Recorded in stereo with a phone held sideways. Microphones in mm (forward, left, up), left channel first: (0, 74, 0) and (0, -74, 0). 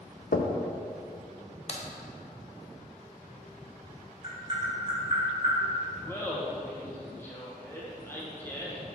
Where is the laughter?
15° left (ahead or behind), 0.9 m.